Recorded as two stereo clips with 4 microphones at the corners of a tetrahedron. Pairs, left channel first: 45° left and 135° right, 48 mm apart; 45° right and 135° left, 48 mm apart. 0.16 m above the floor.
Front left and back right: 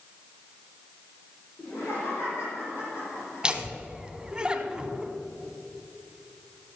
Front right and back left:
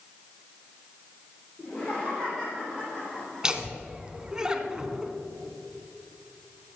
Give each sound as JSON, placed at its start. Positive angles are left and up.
{"t": 1.6, "sound": "laughter", "azimuth_deg": 15, "distance_m": 3.0}
{"t": 3.4, "sound": "laughter", "azimuth_deg": -175, "distance_m": 1.1}